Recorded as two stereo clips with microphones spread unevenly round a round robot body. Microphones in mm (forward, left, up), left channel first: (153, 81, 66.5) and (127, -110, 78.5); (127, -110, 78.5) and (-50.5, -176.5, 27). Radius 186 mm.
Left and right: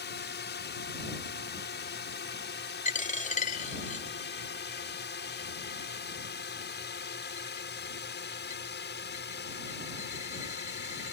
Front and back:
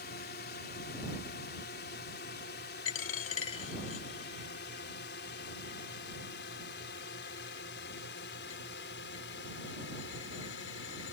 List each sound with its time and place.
0.0 s a drone: 70° left; by 11.1 s 65° left
2.9 s a dropped coin: 30° left